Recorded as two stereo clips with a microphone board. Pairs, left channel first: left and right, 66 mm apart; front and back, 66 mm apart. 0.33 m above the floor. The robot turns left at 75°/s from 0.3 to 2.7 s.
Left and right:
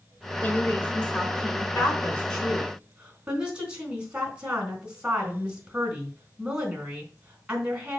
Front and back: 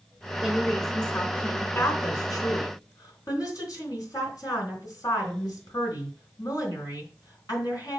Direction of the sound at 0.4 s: 100° left.